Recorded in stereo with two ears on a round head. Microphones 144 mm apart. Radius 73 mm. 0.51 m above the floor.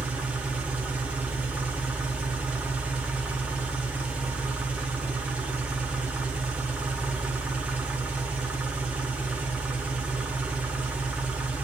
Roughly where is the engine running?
Centre.